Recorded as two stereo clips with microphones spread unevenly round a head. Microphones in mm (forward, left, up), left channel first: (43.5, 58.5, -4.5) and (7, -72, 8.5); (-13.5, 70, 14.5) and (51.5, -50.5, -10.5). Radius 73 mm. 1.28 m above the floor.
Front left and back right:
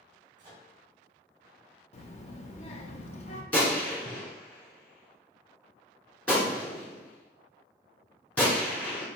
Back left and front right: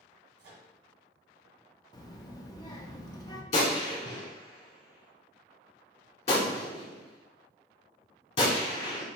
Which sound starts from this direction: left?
A child speaking, at 1.9 s.